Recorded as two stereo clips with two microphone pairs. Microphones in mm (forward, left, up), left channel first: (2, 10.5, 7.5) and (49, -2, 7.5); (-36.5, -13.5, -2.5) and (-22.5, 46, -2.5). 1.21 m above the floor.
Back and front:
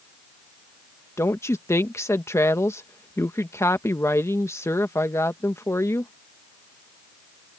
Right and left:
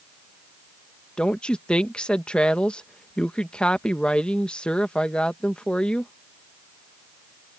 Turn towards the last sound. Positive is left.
turn(degrees=-175)